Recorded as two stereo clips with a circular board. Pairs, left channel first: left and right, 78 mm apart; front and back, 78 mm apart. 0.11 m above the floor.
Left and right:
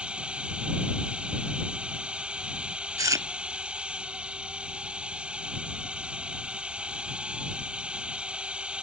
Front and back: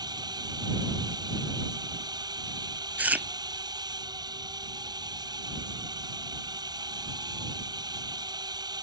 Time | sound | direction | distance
0.0 | a drone | 165° right | ?
3.0 | chewing | 115° right | ?